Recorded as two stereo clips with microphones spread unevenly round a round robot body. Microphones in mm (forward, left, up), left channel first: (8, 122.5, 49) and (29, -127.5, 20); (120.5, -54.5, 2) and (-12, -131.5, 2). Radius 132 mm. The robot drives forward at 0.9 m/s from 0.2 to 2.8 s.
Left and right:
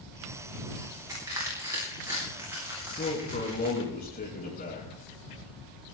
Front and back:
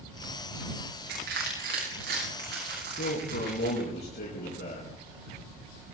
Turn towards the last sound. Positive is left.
turn(degrees=35)